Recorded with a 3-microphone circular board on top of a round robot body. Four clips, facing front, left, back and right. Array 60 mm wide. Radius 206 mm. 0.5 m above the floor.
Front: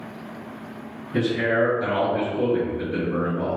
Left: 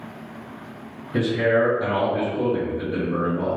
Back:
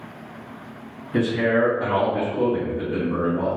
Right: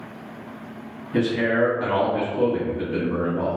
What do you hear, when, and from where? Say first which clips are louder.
1.1 s a man speaking: left 1 dB, back 1 dB; 125° right, 1.7 m